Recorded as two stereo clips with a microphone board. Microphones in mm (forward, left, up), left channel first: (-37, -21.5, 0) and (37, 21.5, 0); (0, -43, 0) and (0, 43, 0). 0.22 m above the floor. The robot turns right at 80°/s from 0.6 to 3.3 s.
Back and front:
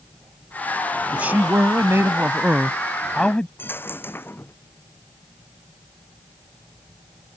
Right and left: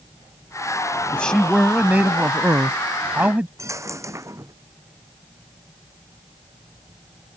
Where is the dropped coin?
145° left.